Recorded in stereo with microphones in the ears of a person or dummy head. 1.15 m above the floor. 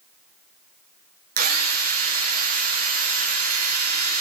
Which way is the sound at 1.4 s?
45° right (ahead or behind).